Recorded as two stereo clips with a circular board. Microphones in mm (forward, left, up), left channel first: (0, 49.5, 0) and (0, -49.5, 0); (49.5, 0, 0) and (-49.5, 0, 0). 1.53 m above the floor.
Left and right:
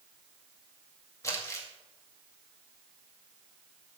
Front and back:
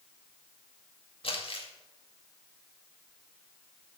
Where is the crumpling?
30° left, 2 m.